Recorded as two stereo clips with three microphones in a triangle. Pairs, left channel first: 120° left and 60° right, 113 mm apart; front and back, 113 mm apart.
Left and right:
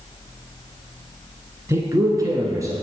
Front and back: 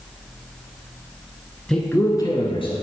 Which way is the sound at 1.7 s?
85° right.